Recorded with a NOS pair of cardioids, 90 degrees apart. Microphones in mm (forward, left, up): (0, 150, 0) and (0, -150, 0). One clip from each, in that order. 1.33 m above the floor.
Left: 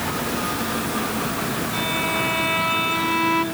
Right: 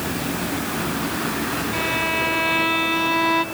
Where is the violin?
30° right, 2.5 m.